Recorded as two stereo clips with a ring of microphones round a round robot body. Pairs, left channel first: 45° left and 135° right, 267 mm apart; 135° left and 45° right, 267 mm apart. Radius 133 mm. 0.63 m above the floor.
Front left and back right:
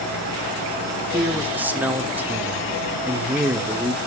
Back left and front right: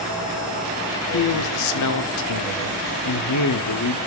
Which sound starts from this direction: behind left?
A man speaking, at 1.1 s.